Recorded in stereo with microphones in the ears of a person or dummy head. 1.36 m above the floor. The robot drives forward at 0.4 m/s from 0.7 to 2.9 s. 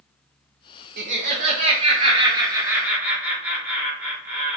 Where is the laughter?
50° right (ahead or behind), 0.5 m; by 4.6 s 20° right (ahead or behind), 1.1 m.